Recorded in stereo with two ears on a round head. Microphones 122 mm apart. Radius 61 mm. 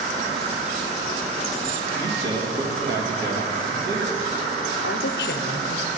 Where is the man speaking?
85° right, 2.0 m.